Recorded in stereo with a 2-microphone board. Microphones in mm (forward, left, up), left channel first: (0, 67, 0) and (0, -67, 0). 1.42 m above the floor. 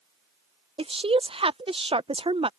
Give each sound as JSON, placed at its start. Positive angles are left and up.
{"t": 0.8, "sound": "a woman speaking", "side_deg": -45}